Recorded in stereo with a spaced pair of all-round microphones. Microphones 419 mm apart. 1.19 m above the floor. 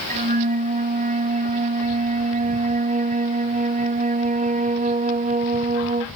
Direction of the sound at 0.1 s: 20° right (ahead or behind).